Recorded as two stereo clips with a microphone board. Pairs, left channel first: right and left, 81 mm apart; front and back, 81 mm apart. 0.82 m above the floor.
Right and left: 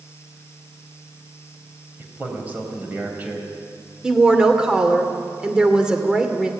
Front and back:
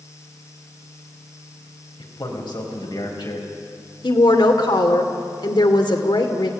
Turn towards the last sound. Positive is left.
turn(degrees=10)